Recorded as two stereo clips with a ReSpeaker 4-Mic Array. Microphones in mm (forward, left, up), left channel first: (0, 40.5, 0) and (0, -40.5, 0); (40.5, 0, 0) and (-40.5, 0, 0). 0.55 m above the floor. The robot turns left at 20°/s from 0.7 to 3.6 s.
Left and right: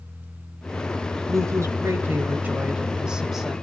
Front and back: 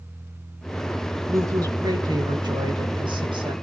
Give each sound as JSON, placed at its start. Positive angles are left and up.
{"t": 1.3, "sound": "a woman speaking", "azimuth_deg": -135, "distance_m": 2.0}